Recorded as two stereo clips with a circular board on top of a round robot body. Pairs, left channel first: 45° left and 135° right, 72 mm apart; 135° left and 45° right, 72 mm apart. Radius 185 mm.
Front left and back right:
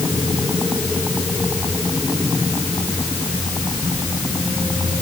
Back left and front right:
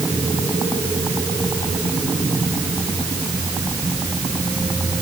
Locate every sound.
Only background noise.